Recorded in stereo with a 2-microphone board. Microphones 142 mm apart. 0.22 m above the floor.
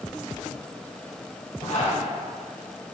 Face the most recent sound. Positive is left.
turn(degrees=65)  # may be behind; listen again after turning